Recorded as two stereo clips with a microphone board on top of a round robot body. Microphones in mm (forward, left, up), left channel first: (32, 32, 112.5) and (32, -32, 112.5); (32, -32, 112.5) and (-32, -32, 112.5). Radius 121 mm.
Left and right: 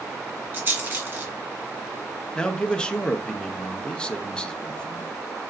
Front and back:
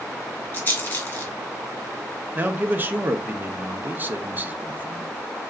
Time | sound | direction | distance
0.5 | a rattle | 55° right | 1.6 m
2.4 | a man speaking | 150° left | 0.7 m